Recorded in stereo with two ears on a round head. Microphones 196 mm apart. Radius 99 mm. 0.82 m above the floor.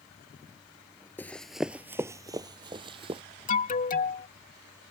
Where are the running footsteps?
10° left (ahead or behind); by 3.2 s 25° right (ahead or behind).